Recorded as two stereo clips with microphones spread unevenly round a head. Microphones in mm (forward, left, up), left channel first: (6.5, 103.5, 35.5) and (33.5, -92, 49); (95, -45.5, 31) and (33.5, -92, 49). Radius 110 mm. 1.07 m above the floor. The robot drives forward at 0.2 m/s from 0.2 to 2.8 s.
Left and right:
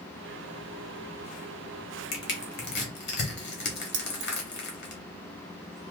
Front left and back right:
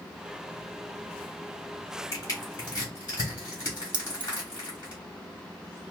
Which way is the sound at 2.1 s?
110° left.